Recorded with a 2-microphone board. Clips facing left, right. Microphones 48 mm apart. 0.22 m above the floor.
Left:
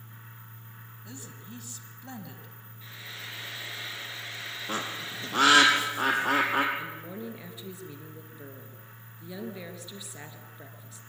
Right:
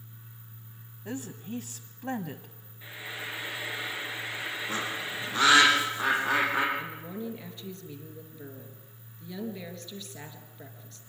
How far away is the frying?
About 2.5 m.